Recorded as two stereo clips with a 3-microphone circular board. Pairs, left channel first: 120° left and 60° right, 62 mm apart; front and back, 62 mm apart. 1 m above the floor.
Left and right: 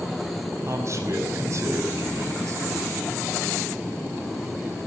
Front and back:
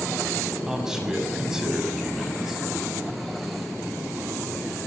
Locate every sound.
0.7 s a man speaking: 100° right, 6 m